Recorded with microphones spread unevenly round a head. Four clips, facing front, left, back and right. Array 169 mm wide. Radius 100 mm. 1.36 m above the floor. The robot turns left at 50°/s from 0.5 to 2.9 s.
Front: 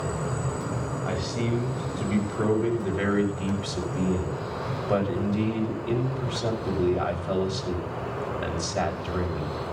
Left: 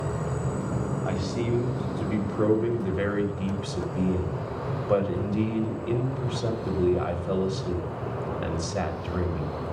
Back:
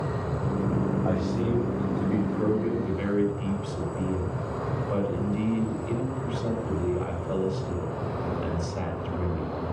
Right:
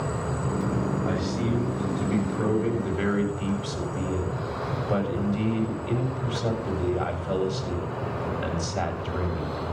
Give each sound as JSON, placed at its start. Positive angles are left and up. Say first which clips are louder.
{"t": 1.1, "sound": "a man speaking", "louder": "right 1 dB, back 2 dB", "azimuth_deg": 160, "distance_m": 7.0}